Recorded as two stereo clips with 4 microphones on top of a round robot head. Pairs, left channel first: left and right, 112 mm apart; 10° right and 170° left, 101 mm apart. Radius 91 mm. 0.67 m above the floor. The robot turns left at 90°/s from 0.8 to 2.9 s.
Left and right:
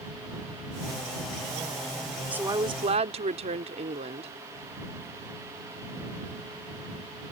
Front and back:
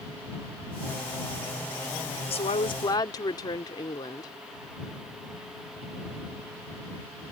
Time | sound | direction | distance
2.3 | a woman speaking | 10° right | ?